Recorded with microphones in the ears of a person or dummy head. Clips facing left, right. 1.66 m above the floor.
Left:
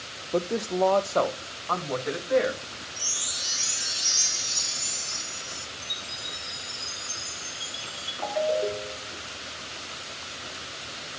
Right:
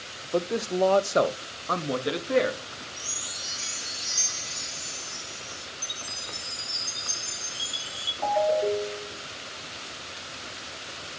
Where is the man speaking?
10° left (ahead or behind), 0.7 m; by 2.6 s 50° right (ahead or behind), 1.5 m.